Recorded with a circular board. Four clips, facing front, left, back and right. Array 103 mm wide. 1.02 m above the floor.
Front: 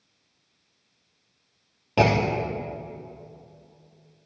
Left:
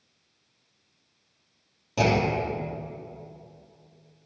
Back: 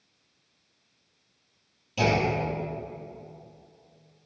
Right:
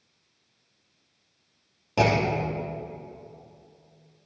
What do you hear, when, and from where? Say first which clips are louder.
2.0 s a clunk: right 1 dB, front 3 dB; 20° right, 0.9 m